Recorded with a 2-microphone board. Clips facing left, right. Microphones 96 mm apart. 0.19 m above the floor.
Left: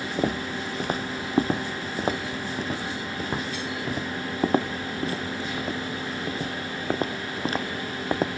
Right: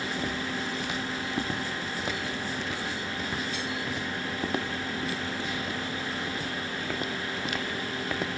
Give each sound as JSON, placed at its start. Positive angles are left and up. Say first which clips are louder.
{"t": 0.2, "sound": "footsteps", "louder": "left 5 dB", "side_deg": 45}